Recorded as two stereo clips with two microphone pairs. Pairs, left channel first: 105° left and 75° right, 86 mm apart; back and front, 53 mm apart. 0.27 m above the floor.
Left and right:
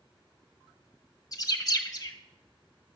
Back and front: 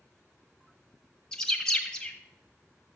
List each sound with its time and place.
1.3 s a bird: 110° left, 1.5 m